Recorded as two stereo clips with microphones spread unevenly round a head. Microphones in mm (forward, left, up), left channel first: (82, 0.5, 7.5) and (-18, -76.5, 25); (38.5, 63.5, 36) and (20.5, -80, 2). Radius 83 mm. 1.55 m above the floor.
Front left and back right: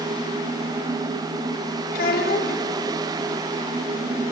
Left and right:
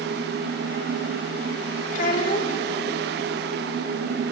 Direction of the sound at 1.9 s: 55° left.